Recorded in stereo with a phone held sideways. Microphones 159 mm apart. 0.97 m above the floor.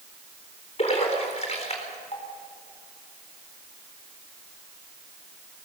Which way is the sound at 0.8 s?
45° left (ahead or behind).